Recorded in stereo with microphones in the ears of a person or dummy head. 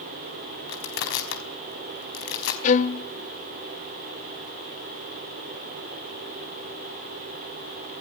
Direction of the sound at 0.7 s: 65° left (ahead or behind).